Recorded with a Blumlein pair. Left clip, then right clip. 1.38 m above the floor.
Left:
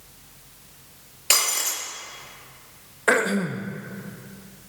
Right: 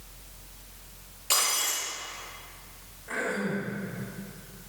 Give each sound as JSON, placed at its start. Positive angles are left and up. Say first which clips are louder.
{"t": 0.0, "sound": "a fan", "louder": "even", "azimuth_deg": 45, "distance_m": 6.5}
{"t": 1.3, "sound": "breaking glass", "louder": "left 4 dB", "azimuth_deg": 30, "distance_m": 5.5}
{"t": 3.1, "sound": "throat clearing", "louder": "left 9 dB", "azimuth_deg": 45, "distance_m": 1.4}